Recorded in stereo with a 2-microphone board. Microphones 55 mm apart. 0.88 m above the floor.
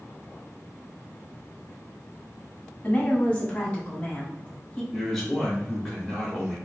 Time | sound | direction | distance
2.8 | a woman speaking | 25° left (ahead or behind) | 1.5 m
4.9 | a man speaking | 5° left (ahead or behind) | 1.2 m